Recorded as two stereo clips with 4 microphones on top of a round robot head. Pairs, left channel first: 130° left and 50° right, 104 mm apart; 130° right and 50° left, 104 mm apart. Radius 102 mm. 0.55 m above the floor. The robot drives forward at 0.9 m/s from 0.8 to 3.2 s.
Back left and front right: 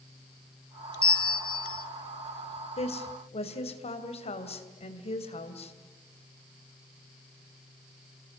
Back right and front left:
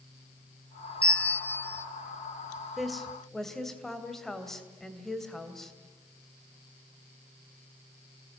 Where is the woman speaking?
140° left, 2.5 m; by 5.7 s 145° left, 3 m.